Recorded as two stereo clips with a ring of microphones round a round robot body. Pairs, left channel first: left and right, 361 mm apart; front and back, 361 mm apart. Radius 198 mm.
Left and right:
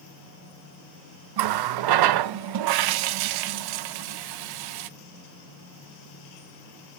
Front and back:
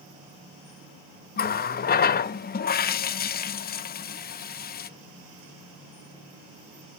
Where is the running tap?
65° right, 0.5 m.